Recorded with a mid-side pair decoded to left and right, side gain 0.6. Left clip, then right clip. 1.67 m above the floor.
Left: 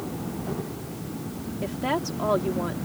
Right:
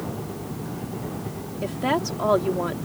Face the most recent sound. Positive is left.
turn(degrees=-25)